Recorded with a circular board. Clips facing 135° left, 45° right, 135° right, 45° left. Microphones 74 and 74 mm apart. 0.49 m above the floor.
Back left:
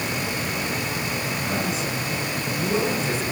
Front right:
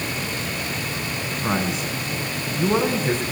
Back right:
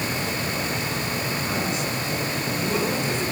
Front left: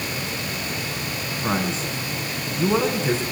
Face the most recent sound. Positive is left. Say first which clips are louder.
# front right 5 dB, front left 1 dB
turn(degrees=-5)